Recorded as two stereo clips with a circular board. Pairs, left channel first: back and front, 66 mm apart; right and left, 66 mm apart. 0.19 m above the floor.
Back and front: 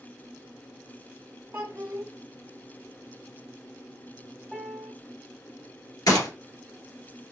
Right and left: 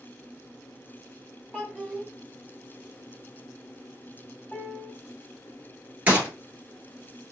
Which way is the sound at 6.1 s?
155° left.